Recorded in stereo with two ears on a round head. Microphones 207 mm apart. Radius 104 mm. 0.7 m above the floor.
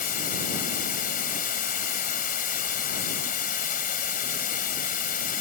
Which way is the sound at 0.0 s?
40° left (ahead or behind).